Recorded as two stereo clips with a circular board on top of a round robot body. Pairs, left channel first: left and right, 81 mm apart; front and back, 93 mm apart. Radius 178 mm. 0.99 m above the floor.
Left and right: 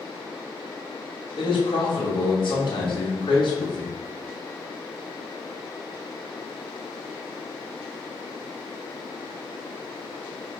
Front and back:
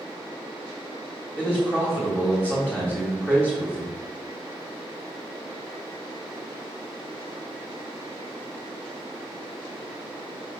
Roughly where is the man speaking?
Left.